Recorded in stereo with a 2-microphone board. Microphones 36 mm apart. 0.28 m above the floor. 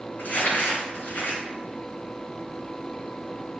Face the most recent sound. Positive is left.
turn(degrees=70)  # may be behind; listen again after turning